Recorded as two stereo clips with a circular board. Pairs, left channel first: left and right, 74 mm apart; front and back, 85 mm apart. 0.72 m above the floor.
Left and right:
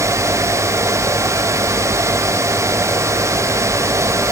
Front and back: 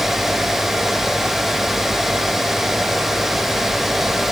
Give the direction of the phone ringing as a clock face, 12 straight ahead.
No phone ringing in this recording.